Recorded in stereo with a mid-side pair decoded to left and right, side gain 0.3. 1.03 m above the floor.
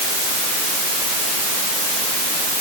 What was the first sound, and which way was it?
Only background noise.